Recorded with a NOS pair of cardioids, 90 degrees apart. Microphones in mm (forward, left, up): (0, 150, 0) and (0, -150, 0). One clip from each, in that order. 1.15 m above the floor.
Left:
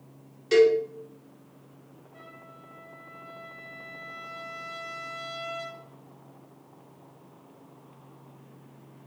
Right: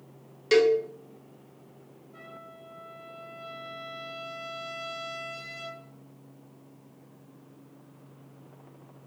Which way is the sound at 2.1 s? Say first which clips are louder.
Right 2 dB; 65° right.